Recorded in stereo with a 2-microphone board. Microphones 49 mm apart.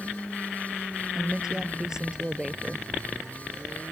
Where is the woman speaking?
15° right (ahead or behind).